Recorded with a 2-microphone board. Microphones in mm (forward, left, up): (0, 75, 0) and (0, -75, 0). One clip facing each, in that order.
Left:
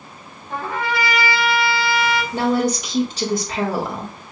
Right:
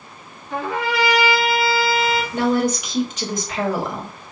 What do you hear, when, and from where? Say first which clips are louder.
0.5 s a trumpet: right 1 dB; 55° left (ahead or behind), 2.5 m
2.3 s a woman speaking: even; 35° left (ahead or behind), 1.7 m